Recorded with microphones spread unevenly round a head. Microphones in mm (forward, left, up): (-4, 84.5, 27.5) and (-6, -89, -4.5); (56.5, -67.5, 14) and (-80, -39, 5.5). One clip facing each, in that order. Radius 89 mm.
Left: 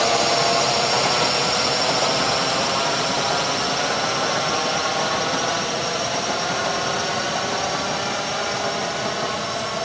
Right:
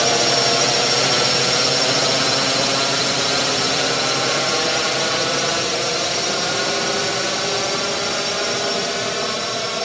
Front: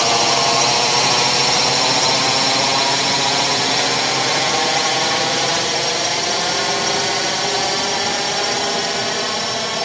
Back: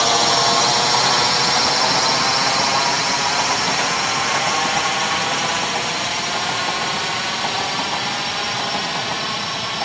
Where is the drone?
80° right; by 9.8 s 40° right.